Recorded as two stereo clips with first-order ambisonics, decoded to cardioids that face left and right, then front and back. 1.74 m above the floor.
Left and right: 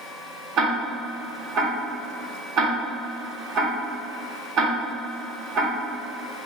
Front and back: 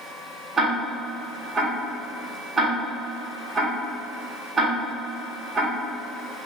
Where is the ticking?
110° right, 1.1 m.